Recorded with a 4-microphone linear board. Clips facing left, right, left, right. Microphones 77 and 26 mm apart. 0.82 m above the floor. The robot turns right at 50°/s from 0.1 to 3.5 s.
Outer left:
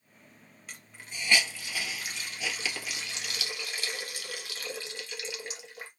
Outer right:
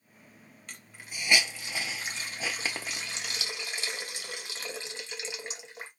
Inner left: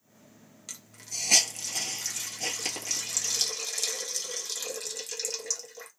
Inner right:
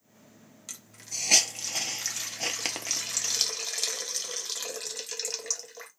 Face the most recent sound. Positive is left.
turn(degrees=-25)  # may be behind; listen again after turning